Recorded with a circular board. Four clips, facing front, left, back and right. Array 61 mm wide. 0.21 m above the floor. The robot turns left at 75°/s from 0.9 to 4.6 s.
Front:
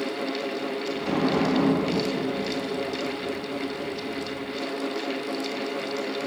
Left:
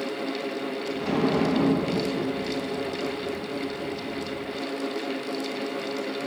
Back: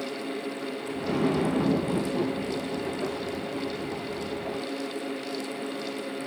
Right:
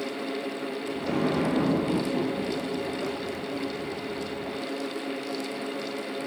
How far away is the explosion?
About 0.9 m.